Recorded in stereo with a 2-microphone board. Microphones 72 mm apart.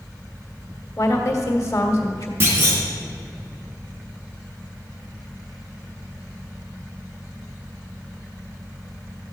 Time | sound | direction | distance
1.0 | a woman speaking | 45° left (ahead or behind) | 1.7 m
2.4 | a clunk | 30° right (ahead or behind) | 3.5 m